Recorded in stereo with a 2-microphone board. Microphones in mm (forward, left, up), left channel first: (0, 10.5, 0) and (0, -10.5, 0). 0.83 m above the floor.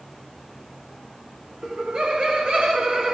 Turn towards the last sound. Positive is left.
turn(degrees=-40)  # may be behind; listen again after turning